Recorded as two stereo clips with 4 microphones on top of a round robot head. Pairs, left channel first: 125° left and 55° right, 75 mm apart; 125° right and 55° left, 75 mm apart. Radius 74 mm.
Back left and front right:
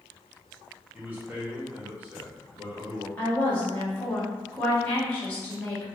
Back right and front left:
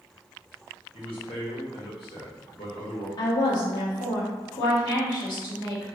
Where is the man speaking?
120° right, 1.1 m.